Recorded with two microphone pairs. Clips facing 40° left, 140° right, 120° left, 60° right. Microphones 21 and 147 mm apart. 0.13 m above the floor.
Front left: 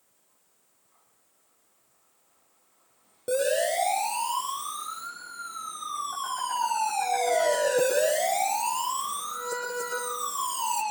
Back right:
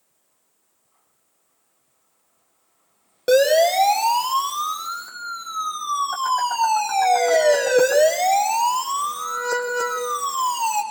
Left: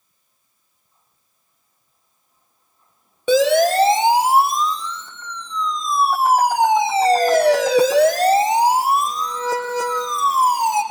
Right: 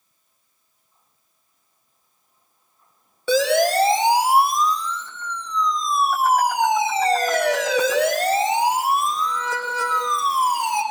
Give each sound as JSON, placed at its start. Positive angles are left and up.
{"t": 3.3, "sound": "a siren", "azimuth_deg": -170, "distance_m": 6.5}